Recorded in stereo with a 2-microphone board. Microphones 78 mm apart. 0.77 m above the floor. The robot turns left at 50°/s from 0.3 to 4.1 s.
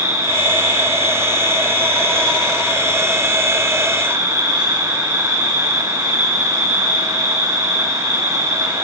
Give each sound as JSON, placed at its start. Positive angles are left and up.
{"t": 0.0, "sound": "an insect", "azimuth_deg": 110, "distance_m": 8.5}